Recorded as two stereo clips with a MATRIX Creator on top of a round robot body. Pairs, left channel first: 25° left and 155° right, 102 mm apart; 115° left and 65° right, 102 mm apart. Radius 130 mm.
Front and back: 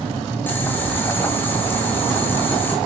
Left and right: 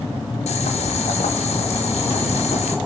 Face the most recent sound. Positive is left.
turn(degrees=95)